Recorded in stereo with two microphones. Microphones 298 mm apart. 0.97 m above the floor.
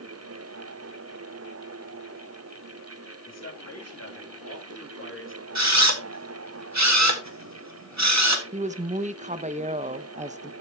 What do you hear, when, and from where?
3.3 s a man speaking: 60° left (ahead or behind), 3 m; by 5.5 s 40° left (ahead or behind), 1.8 m
5.5 s a camera shutter: 65° right (ahead or behind), 1.6 m
8.5 s a woman speaking: 25° right (ahead or behind), 0.6 m